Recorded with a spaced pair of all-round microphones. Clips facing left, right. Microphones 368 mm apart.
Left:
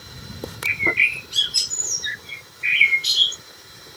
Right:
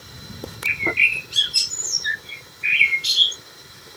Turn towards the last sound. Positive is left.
turn(degrees=0)  # may be behind; listen again after turning